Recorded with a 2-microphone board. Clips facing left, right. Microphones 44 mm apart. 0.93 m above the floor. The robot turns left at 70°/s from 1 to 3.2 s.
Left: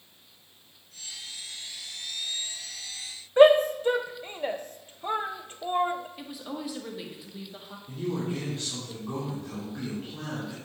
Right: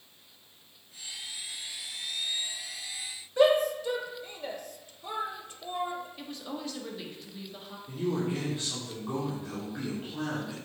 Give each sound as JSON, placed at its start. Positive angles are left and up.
{"t": 3.4, "sound": "a shout", "side_deg": 40, "distance_m": 0.5}
{"t": 6.2, "sound": "a woman speaking", "side_deg": 10, "distance_m": 1.2}
{"t": 7.9, "sound": "a man speaking", "side_deg": -15, "distance_m": 2.5}